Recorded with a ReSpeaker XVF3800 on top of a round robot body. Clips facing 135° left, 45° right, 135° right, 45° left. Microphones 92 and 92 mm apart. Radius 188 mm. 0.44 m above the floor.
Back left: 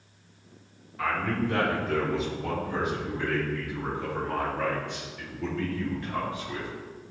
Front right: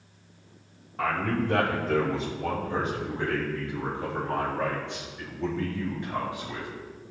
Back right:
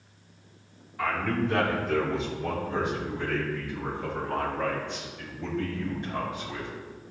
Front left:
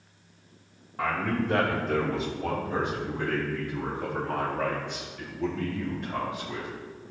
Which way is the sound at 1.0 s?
5° right.